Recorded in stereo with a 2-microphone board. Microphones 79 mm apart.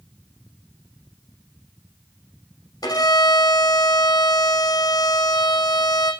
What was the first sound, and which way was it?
A violin, 60° left (ahead or behind).